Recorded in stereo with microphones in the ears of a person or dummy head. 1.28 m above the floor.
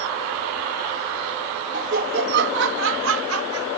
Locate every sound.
1.7 s laughter: 45° right (ahead or behind); by 3.7 s 80° right